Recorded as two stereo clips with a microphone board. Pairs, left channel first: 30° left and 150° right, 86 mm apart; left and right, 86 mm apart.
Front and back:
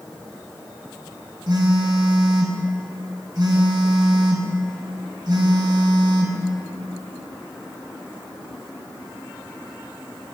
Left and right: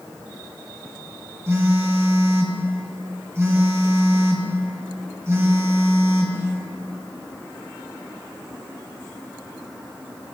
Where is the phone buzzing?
140° right, 1.4 m.